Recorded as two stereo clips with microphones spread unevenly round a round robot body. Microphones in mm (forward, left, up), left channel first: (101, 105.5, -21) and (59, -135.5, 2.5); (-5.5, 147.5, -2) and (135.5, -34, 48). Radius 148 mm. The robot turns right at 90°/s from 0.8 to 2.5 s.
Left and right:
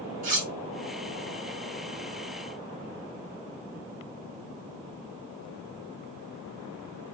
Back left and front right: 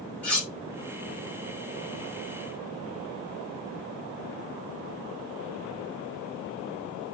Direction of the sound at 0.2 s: 160° right.